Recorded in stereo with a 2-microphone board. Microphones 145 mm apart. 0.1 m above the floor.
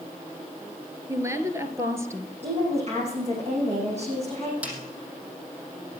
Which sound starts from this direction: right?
A woman speaking, at 2.4 s.